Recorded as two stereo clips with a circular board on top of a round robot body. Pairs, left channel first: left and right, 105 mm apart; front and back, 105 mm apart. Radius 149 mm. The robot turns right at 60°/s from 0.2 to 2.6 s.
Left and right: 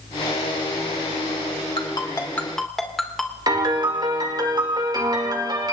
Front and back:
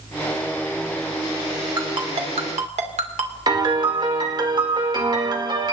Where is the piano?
135° right, 2.5 m.